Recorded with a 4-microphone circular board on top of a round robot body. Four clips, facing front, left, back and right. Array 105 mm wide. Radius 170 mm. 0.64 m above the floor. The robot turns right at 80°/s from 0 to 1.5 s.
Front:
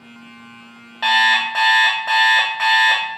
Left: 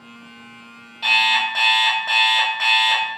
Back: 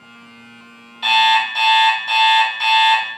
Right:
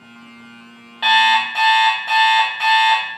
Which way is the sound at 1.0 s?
30° right.